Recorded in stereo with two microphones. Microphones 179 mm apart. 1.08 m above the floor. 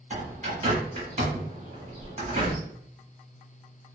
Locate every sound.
0.1 s a bird: 45° right (ahead or behind), 1.3 m